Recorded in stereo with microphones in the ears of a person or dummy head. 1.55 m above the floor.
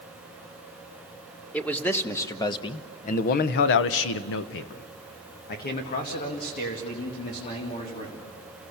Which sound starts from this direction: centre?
A man speaking, at 1.5 s.